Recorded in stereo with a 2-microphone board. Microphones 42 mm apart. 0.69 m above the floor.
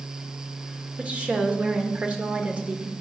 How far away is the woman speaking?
About 1.6 m.